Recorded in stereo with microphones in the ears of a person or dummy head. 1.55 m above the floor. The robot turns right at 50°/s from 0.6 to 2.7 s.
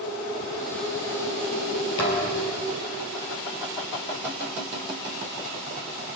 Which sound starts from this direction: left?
A thud, at 2.0 s.